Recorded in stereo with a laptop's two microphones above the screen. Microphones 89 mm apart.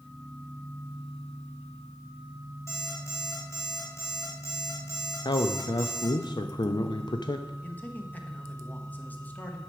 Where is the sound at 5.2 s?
55° left (ahead or behind), 0.6 m.